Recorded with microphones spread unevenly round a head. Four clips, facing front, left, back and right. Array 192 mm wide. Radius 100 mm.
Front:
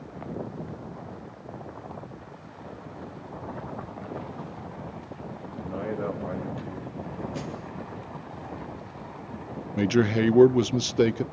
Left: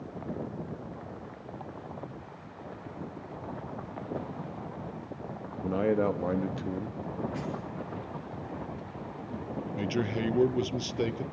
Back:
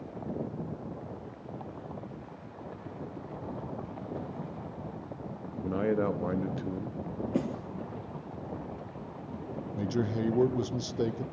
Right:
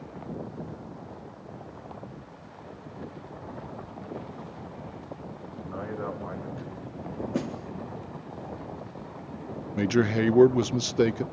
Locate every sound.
5.6 s a man speaking: 130° left, 2 m
7.3 s a snare drum: 140° right, 3.5 m
9.8 s a man speaking: 25° right, 0.9 m